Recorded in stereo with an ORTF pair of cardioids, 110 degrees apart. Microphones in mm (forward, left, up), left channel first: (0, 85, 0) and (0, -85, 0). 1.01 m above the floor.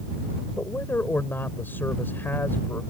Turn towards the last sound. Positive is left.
turn(degrees=10)